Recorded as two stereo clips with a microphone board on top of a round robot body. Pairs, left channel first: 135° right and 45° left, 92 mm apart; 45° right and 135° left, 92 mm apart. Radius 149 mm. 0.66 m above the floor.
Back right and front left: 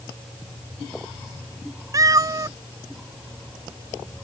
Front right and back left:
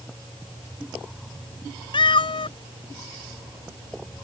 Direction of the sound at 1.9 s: 10° right.